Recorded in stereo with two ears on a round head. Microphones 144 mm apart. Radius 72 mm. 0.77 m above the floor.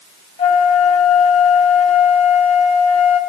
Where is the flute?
40° left (ahead or behind), 2.5 m.